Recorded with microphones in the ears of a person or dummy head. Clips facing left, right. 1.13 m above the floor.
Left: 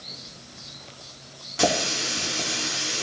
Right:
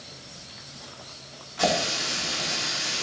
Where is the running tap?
45° left (ahead or behind), 2 m.